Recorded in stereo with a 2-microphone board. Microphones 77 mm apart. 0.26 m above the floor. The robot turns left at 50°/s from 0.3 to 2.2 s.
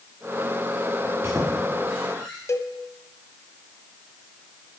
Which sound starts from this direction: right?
A squeak, at 1.0 s.